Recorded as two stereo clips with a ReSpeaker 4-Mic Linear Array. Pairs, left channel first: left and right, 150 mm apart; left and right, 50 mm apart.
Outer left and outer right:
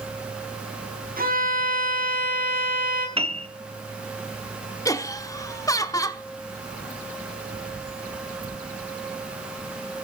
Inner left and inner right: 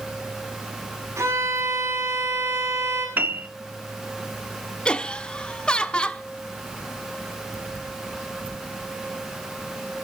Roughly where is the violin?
Right.